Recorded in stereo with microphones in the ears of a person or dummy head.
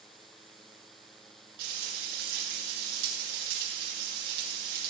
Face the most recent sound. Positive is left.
turn(degrees=-65)  # may be behind; listen again after turning